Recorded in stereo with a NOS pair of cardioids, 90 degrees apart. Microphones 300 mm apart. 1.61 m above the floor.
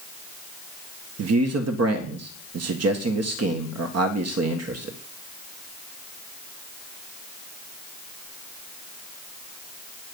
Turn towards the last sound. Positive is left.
turn(degrees=-55)